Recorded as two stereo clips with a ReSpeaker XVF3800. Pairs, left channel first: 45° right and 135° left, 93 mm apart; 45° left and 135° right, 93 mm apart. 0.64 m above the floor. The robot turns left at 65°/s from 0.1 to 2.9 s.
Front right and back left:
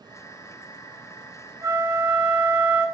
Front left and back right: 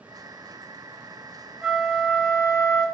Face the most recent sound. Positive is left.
turn(degrees=60)